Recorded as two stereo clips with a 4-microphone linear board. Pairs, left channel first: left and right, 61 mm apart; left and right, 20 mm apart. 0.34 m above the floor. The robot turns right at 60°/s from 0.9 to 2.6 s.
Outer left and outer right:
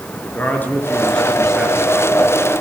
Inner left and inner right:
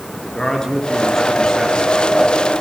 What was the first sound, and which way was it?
A man speaking, 150° left.